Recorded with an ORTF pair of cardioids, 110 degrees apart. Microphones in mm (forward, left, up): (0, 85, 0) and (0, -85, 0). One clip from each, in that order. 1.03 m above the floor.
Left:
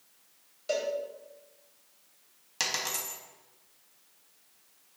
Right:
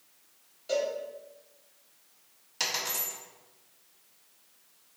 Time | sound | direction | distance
0.7 | a cowbell | 45° left | 2.5 m
2.6 | a dropped coin | 25° left | 2.5 m